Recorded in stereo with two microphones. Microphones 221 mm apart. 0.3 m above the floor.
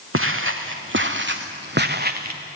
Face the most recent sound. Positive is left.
turn(degrees=-40)  # may be behind; listen again after turning